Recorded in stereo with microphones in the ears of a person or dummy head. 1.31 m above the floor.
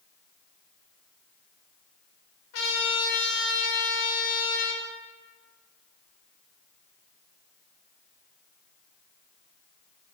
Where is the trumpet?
75° left (ahead or behind), 0.7 m.